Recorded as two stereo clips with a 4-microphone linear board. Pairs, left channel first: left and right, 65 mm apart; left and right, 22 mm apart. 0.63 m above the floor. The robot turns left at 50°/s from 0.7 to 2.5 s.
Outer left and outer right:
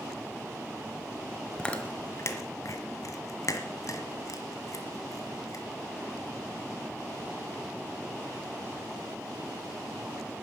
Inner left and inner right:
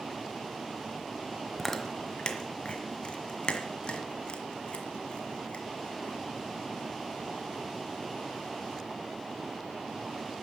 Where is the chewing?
10° left (ahead or behind), 1.5 m; by 5.7 s 55° left (ahead or behind), 1.5 m.